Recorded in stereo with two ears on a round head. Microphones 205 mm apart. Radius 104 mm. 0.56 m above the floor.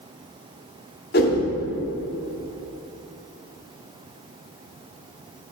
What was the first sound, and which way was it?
A whoosh, 45° left (ahead or behind).